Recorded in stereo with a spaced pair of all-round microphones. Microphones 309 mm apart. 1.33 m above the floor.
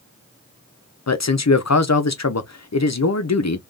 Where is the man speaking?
60° left (ahead or behind), 0.6 m.